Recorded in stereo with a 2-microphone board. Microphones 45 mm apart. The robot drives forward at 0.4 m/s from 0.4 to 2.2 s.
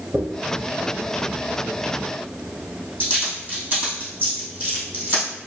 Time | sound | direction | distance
0.1 | a dropped coin | 35° right (ahead or behind) | 2 m